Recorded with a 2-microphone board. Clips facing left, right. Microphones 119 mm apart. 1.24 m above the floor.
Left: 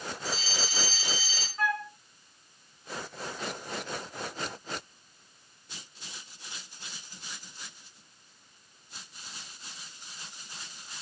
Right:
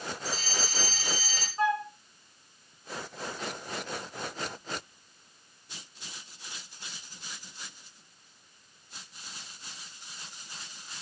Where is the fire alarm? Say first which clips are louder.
Left 1 dB; 45° right (ahead or behind), 4.5 m.